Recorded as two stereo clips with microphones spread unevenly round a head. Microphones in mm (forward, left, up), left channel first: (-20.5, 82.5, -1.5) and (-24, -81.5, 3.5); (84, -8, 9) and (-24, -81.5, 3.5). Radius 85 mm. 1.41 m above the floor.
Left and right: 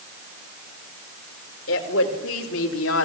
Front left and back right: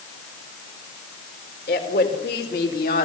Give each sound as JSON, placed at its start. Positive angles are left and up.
{"t": 1.7, "sound": "a woman speaking", "azimuth_deg": 70, "distance_m": 4.5}